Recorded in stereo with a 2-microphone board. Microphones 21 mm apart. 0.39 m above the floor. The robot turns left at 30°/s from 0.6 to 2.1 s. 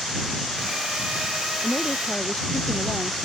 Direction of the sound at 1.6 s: 70° left (ahead or behind).